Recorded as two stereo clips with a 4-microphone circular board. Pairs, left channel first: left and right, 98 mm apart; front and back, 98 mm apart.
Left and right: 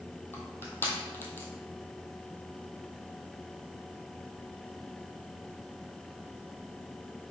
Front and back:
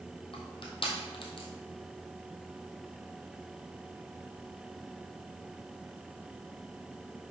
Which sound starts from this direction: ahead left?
Crushing, at 0.3 s.